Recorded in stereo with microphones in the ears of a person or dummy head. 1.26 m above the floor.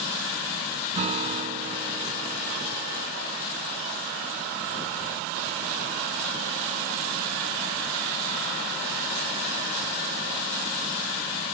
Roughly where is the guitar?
Right.